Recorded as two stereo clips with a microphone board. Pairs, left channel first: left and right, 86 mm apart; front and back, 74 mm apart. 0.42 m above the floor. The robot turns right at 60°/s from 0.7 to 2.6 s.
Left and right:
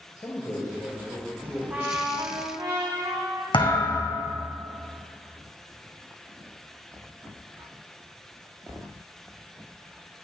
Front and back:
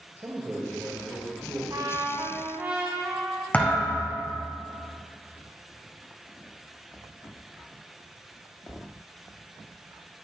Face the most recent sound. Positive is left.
turn(degrees=70)